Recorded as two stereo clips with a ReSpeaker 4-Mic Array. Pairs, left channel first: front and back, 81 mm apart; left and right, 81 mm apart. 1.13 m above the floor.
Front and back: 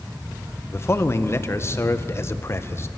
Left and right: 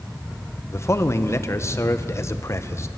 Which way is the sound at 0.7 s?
45° left.